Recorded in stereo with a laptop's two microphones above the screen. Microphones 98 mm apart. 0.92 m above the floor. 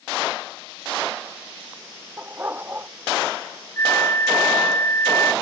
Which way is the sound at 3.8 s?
25° left (ahead or behind).